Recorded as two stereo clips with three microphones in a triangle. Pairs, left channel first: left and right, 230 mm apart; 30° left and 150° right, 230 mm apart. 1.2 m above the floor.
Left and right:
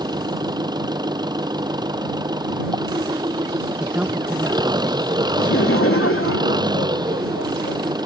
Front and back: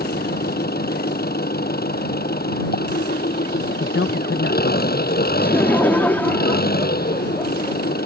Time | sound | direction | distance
0.0 | an engine running | 20° right | ?
3.8 | a man speaking | 5° right | ?
5.4 | laughter | 110° left | ?